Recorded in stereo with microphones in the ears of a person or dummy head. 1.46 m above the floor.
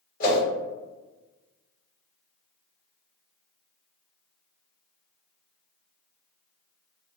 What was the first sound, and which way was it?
A whoosh, 50° left (ahead or behind).